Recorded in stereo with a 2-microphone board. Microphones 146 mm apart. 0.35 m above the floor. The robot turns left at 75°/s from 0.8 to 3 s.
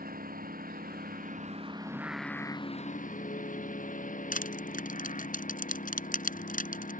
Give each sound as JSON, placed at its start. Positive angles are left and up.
{"t": 0.0, "sound": "a lawn mower", "azimuth_deg": -80}
{"t": 1.9, "sound": "singing", "azimuth_deg": -155}
{"t": 4.3, "sound": "crushing", "side_deg": 65}